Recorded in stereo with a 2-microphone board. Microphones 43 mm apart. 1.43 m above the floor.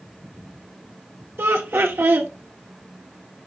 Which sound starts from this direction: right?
Laughter, at 1.4 s.